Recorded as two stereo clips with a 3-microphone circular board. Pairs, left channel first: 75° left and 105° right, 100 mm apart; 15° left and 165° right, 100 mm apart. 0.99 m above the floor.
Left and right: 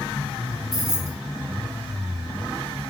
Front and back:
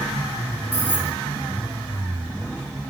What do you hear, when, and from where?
0.7 s keys jangling: 55° right, 0.6 m